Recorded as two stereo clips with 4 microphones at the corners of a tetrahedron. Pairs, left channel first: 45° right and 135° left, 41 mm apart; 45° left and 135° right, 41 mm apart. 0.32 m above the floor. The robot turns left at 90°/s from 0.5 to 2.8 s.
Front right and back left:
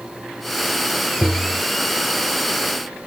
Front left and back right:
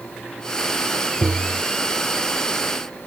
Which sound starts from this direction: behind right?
Tapping, at 1.2 s.